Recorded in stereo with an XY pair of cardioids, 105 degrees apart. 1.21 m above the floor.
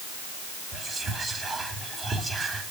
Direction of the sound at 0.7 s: 30° right.